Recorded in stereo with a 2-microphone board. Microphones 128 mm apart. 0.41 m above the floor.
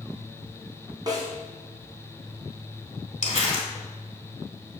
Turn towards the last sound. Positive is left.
turn(degrees=75)  # may be behind; listen again after turning